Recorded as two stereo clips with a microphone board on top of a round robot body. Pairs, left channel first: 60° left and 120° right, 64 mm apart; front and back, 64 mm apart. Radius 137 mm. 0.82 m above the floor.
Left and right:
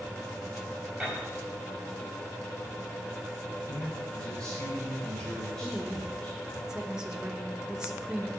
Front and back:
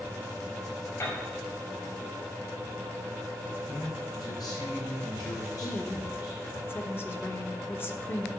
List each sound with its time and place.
1.0 s a piano: 30° right, 6 m
3.7 s a man speaking: 15° right, 4.5 m
5.6 s a woman speaking: 45° right, 1.4 m